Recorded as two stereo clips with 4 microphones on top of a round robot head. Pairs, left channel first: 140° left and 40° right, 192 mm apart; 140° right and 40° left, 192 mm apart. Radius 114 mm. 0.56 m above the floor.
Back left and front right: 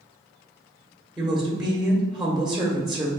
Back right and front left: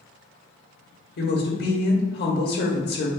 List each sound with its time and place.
1.2 s a woman speaking: 130° right, 1.7 m